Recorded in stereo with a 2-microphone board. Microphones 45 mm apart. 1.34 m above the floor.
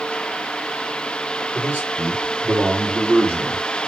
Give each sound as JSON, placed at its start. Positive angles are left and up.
{"t": 1.5, "sound": "a man speaking", "side_deg": -35, "distance_m": 5.5}